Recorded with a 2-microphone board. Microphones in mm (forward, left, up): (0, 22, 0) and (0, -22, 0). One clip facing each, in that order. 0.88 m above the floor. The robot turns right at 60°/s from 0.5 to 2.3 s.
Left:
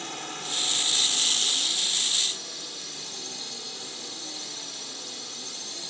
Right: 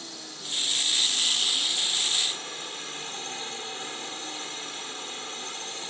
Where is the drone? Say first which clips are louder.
Left 6 dB; 115° left; by 5.9 s 135° right.